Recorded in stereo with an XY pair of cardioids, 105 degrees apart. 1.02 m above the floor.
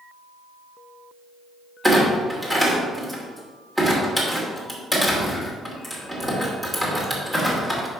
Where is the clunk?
10° right, 2.5 m.